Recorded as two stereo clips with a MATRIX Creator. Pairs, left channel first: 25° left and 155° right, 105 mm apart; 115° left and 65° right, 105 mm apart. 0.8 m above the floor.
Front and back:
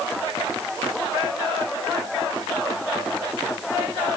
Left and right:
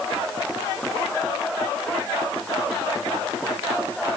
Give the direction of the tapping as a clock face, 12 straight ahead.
I don't hear tapping.